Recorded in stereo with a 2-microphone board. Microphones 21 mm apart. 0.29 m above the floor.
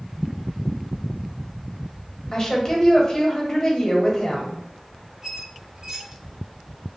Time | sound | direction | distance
2.3 | a woman speaking | 30° left (ahead or behind) | 1.0 m
5.2 | a squeak | 35° right (ahead or behind) | 0.8 m